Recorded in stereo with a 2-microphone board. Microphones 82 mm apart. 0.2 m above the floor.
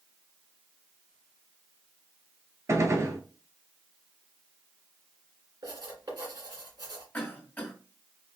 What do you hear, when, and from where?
2.7 s a gunshot: 40° right (ahead or behind), 0.6 m
5.6 s writing: 60° right (ahead or behind), 2 m
7.1 s a cough: 20° left (ahead or behind), 1.8 m